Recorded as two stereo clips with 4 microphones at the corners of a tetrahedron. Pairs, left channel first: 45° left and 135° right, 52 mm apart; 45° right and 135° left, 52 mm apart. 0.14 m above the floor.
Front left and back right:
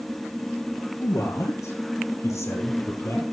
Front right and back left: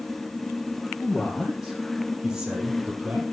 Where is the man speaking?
40° left, 5.5 m; by 3.2 s 70° left, 5 m.